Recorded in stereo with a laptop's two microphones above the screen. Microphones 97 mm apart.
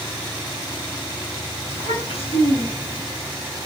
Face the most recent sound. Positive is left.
turn(degrees=80)